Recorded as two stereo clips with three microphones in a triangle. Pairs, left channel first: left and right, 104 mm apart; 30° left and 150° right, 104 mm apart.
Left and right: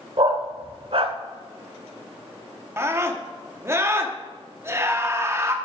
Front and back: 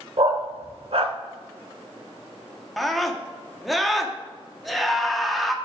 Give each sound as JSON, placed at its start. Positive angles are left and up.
{"t": 0.2, "sound": "a dog barking", "azimuth_deg": -120, "distance_m": 0.7}
{"t": 2.8, "sound": "a scream", "azimuth_deg": -60, "distance_m": 0.8}